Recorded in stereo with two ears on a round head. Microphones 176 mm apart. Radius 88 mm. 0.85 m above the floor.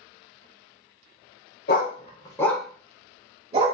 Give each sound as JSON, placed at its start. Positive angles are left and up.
{"t": 1.7, "sound": "a dog barking", "side_deg": 50, "distance_m": 0.7}